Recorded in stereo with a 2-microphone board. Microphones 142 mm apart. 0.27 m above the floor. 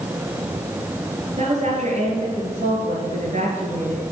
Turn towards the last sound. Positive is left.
turn(degrees=-50)  # may be behind; listen again after turning